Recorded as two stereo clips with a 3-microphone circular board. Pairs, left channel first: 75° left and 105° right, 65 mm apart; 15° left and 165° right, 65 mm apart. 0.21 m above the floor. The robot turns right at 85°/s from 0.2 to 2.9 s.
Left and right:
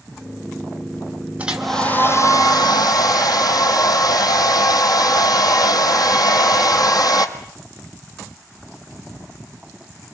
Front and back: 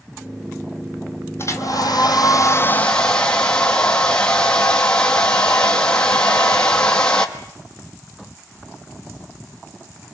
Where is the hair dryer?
35° right, 1.9 m; by 7.3 s 95° left, 1.9 m.